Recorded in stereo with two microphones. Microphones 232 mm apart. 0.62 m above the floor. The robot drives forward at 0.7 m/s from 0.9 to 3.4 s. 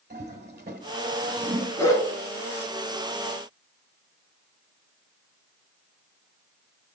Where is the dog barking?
15° left (ahead or behind), 3 m.